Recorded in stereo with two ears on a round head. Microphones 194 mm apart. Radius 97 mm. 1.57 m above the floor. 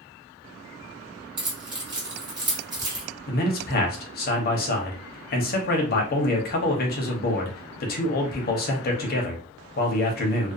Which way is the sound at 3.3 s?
45° left (ahead or behind).